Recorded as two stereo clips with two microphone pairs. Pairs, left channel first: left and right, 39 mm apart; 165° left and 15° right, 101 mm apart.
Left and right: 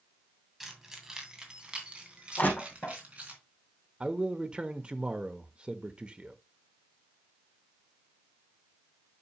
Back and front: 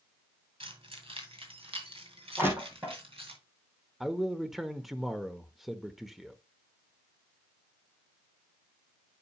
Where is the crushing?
55° left, 3.5 m.